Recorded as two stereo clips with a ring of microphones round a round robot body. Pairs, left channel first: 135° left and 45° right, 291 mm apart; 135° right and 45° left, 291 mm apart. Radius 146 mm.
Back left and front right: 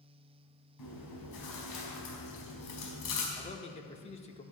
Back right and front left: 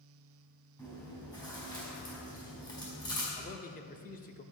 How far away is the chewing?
About 4.5 m.